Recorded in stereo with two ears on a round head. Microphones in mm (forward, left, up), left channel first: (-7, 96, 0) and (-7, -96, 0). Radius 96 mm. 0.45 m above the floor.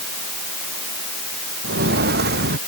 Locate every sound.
1.6 s footsteps: 50° right (ahead or behind)